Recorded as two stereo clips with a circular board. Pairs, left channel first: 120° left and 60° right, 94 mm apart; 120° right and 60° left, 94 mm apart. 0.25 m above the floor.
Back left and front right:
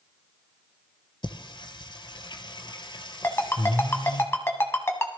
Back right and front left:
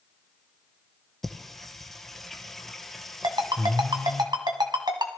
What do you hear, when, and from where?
1.2 s singing: 155° left, 1.1 m
3.2 s a ringtone: 65° left, 1.4 m